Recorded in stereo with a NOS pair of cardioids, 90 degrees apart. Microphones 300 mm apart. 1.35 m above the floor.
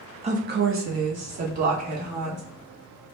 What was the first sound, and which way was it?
A woman speaking, 20° right.